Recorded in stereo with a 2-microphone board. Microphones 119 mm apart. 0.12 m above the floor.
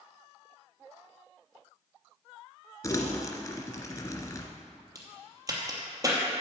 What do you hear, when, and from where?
2.8 s crumpling: 30° left (ahead or behind), 1.7 m
5.0 s a crack: 30° right (ahead or behind), 2.5 m